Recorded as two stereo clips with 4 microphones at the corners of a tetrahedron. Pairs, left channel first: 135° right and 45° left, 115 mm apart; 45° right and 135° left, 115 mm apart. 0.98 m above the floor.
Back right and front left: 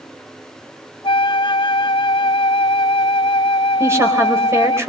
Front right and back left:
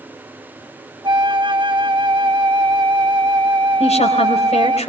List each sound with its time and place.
1.0 s a flute: straight behind, 0.8 m
3.8 s a woman speaking: 25° right, 4 m